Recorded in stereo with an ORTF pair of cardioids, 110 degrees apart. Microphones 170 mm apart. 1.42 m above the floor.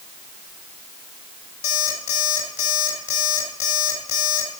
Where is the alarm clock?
65° left, 3 m.